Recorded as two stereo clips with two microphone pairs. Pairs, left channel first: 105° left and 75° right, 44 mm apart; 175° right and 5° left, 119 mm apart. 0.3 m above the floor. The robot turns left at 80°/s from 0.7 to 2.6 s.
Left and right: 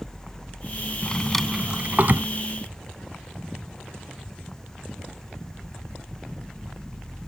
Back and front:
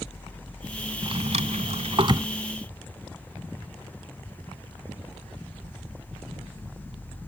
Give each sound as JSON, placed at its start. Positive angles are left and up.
{"t": 1.0, "sound": "a drawer", "azimuth_deg": 45}